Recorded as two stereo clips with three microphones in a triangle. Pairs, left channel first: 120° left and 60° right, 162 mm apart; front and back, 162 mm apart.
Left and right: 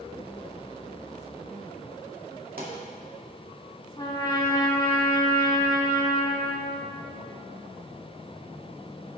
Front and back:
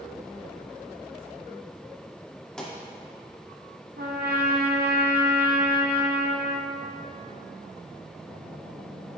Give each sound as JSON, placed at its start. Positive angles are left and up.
{"t": 2.6, "sound": "a pop", "azimuth_deg": -85, "distance_m": 2.0}
{"t": 4.0, "sound": "a trumpet", "azimuth_deg": -175, "distance_m": 1.1}